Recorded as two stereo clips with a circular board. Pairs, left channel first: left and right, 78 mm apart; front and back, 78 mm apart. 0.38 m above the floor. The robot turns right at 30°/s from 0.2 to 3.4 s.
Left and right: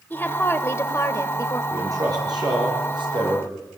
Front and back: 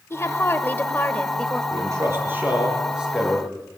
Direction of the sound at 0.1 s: 35° left.